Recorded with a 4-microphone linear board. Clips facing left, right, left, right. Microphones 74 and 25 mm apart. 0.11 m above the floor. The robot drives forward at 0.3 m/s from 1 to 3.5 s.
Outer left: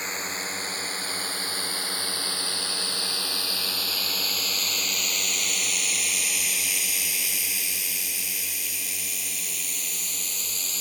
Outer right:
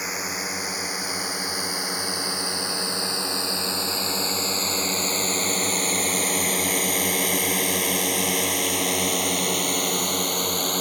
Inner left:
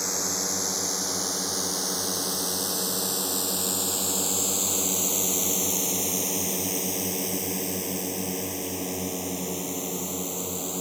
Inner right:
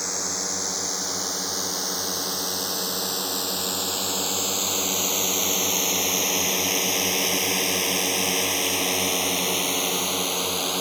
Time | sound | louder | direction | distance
0.0 | a drone | outer right 2 dB, even | 10° right (ahead or behind) | ?